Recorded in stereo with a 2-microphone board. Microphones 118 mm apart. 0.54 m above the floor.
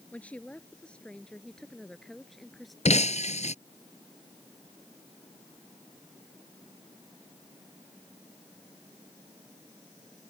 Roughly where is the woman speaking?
Centre.